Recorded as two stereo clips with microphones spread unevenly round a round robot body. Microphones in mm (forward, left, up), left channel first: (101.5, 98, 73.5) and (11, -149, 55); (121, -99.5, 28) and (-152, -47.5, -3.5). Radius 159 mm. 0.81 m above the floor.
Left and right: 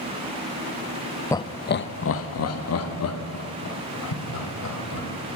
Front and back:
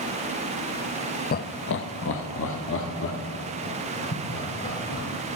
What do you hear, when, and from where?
1.3 s laughter: 5° right, 0.5 m; by 5.1 s 50° left, 3 m